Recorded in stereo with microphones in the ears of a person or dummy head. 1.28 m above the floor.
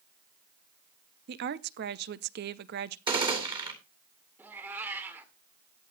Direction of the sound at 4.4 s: 10° right (ahead or behind).